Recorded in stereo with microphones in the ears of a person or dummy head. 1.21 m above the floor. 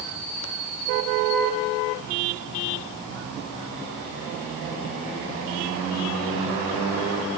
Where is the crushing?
No crushing in this recording.